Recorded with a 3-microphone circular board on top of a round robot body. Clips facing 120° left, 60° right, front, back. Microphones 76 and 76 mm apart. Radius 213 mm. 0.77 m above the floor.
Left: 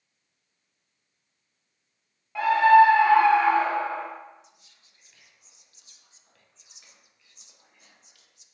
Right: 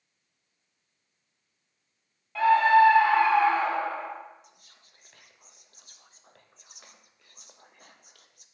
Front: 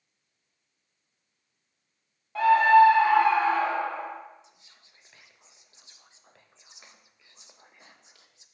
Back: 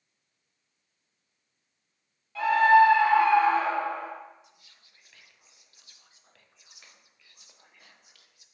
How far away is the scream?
About 1.6 m.